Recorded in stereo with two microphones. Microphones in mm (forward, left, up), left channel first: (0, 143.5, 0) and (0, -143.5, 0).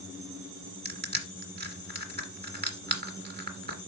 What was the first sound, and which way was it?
Crushing, 35° right (ahead or behind).